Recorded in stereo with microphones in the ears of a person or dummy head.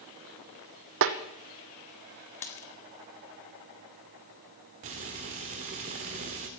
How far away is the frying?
About 1.6 m.